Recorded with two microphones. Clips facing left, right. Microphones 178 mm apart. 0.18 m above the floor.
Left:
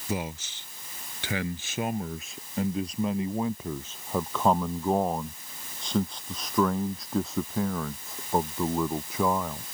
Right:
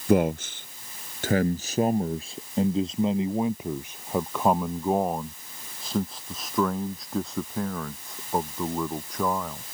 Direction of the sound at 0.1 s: 65° right (ahead or behind).